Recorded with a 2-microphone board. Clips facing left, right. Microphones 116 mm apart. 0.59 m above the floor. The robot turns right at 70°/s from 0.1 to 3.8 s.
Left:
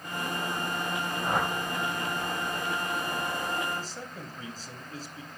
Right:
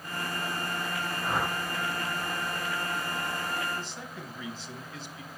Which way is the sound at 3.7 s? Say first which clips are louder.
Left 1 dB; 45° left (ahead or behind).